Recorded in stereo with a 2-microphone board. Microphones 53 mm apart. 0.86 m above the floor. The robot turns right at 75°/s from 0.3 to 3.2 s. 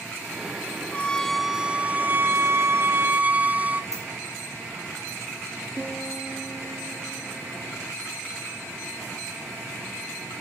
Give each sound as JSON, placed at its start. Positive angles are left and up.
{"t": 0.9, "sound": "a violin", "azimuth_deg": 145, "distance_m": 0.5}
{"t": 3.9, "sound": "a dropped coin", "side_deg": -85, "distance_m": 5.5}
{"t": 5.8, "sound": "a piano", "side_deg": -5, "distance_m": 3.0}